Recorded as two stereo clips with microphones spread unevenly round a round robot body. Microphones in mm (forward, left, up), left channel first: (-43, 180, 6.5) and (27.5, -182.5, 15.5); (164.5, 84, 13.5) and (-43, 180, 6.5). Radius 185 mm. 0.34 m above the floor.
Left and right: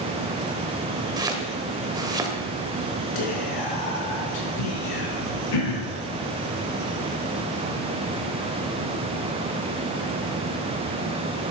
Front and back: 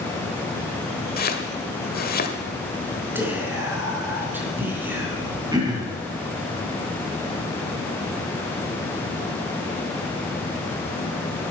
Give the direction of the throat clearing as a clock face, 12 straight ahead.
9 o'clock.